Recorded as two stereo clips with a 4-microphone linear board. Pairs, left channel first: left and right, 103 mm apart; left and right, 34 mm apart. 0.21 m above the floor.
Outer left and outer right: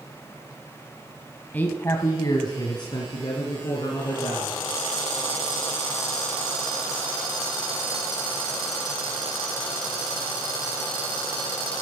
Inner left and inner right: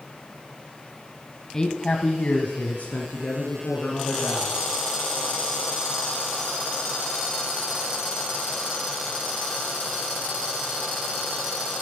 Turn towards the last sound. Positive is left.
turn(degrees=55)  # may be behind; listen again after turning